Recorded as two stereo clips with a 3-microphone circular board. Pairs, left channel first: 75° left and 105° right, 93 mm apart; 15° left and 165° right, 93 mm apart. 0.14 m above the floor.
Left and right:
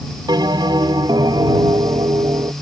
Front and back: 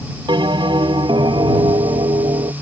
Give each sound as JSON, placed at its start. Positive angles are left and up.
{"t": 0.3, "sound": "a bell", "azimuth_deg": -140}